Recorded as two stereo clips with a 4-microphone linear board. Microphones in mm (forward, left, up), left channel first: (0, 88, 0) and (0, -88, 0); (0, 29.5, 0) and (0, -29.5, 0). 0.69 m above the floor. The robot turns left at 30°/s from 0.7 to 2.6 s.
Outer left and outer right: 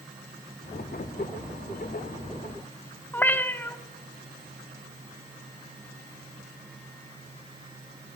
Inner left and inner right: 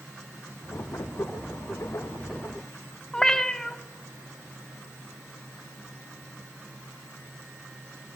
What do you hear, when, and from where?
3.1 s a cat meowing: 10° left (ahead or behind), 0.5 m